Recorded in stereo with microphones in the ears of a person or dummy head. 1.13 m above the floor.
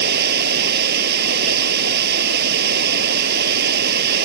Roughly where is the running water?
Right.